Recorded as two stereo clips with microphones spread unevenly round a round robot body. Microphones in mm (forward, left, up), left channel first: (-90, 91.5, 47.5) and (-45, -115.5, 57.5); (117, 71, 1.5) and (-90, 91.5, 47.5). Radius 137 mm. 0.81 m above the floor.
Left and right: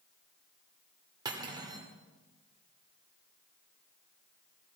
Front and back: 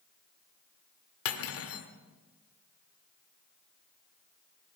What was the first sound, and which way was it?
Cutlery clinking, straight ahead.